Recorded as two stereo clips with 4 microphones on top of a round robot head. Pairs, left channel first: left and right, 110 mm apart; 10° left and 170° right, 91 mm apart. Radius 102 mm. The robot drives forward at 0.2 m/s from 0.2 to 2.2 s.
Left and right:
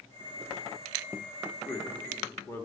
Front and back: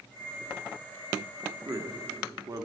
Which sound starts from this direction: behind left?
A man speaking, at 1.6 s.